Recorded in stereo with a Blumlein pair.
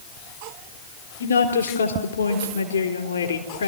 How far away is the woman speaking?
About 4 m.